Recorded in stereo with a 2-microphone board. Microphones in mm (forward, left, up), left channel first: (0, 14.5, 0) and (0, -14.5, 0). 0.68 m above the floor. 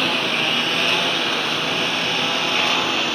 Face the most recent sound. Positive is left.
turn(degrees=10)  # may be behind; listen again after turning